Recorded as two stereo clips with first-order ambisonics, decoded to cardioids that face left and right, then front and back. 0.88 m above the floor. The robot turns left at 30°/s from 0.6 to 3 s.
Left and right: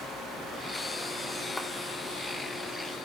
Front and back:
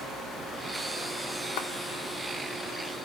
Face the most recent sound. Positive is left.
turn(degrees=-35)